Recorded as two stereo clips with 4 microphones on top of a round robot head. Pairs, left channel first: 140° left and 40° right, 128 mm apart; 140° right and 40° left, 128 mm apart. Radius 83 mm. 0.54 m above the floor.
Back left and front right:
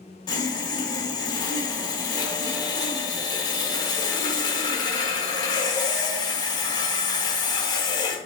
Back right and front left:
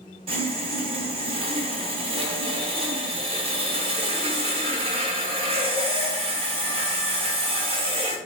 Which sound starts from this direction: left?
Sawing, at 0.3 s.